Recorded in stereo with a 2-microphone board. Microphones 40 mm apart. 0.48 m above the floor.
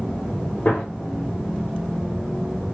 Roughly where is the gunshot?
Left.